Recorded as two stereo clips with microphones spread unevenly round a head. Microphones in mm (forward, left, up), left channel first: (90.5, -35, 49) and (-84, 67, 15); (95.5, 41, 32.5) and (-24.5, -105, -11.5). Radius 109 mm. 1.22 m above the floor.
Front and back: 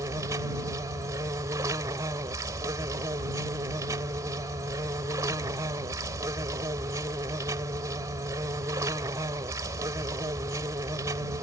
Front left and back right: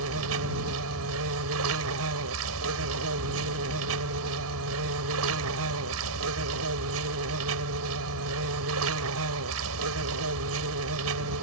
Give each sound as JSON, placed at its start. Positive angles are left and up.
{"t": 0.0, "sound": "an insect", "azimuth_deg": -135}